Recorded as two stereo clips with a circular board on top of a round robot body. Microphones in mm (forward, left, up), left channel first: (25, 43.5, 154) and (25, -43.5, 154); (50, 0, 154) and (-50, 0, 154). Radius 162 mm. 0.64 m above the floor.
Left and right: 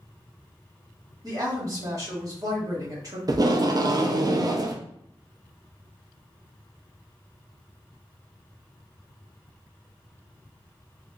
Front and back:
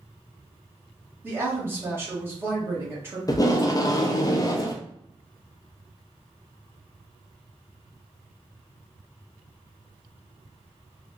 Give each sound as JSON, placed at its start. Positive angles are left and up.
{"t": 1.2, "sound": "a woman speaking", "azimuth_deg": -120, "distance_m": 1.6}
{"t": 3.3, "sound": "tape being pulled", "azimuth_deg": -50, "distance_m": 0.6}